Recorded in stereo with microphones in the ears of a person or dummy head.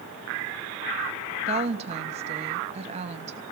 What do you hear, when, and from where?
1.5 s a woman speaking: 40° right (ahead or behind), 0.9 m